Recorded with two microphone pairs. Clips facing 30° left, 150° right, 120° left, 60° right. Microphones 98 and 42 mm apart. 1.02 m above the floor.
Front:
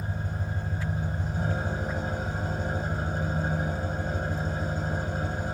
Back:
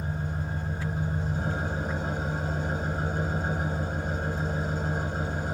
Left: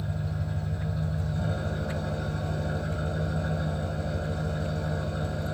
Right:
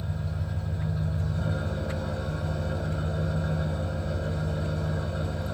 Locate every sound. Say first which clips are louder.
0.0 s an engine running: back 2 dB, left 1 dB; 140° right, 1.6 m